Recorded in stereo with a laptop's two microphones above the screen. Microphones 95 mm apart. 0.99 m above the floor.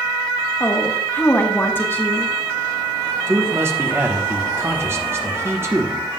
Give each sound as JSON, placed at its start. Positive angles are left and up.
{"t": 0.6, "sound": "a woman speaking", "side_deg": 25, "distance_m": 1.1}
{"t": 3.3, "sound": "a man speaking", "side_deg": -25, "distance_m": 0.9}